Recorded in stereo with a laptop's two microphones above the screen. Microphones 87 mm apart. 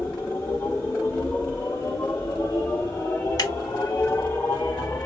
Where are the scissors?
40° left (ahead or behind), 1.2 m.